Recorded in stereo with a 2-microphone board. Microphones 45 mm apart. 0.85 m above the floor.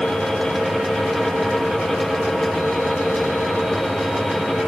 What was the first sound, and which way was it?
Only background noise.